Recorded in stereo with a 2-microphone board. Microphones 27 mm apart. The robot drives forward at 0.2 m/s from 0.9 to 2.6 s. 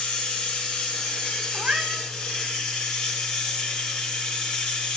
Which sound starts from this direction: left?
Running water, at 0.0 s.